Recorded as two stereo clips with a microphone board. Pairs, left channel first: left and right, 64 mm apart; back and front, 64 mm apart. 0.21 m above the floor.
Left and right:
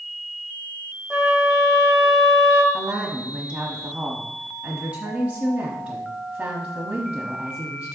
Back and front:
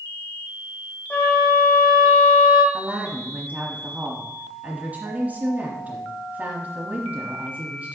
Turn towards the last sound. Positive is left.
turn(degrees=-40)